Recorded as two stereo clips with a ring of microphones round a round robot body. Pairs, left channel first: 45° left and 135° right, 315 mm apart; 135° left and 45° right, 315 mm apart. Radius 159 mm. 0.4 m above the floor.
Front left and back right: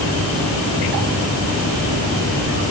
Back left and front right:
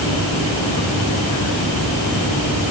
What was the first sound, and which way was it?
Only background noise.